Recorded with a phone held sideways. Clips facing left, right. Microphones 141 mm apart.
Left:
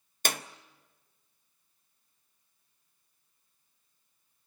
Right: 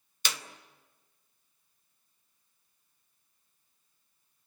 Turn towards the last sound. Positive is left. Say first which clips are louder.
# left 5 dB
turn(degrees=50)  # may be behind; listen again after turning